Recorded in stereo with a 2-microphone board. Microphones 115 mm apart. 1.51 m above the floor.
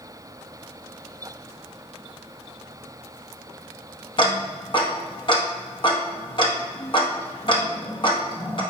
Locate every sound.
4.2 s ticking: 45° left (ahead or behind), 0.9 m